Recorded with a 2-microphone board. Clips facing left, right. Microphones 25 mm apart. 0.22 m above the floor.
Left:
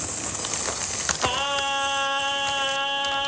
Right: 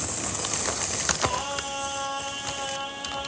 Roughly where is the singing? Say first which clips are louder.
Left 4 dB; left.